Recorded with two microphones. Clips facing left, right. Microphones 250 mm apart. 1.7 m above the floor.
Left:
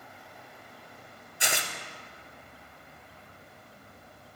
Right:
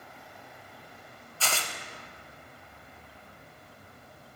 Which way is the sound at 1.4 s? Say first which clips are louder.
Left 1 dB; 15° left (ahead or behind).